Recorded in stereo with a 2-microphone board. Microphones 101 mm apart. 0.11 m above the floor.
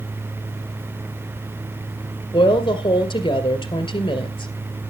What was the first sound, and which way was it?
A woman speaking, 55° left (ahead or behind).